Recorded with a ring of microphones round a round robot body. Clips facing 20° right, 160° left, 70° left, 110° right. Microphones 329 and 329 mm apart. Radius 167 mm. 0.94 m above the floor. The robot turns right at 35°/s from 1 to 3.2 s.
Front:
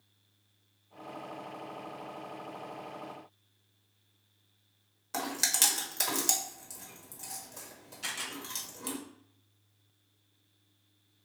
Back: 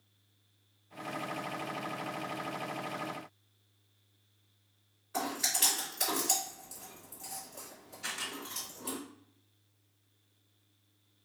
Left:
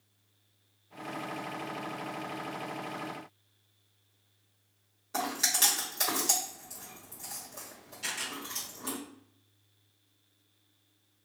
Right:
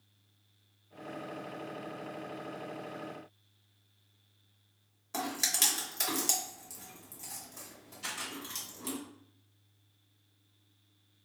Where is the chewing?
40° right, 1.4 m.